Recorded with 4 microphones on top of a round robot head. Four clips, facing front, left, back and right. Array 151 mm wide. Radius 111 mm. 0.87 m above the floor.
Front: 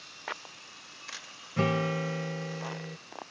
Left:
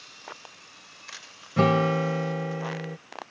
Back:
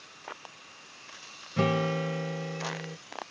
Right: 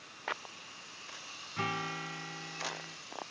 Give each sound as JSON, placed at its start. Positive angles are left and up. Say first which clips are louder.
{"t": 1.6, "sound": "a guitar", "louder": "left 15 dB, back 1 dB", "azimuth_deg": 100}